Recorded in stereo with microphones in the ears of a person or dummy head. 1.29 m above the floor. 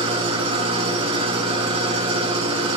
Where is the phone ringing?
I don't hear a phone ringing.